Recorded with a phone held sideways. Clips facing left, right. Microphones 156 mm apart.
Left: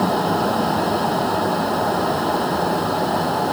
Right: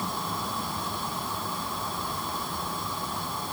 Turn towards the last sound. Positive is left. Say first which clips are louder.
# left 15 dB
turn(degrees=75)  # may be behind; listen again after turning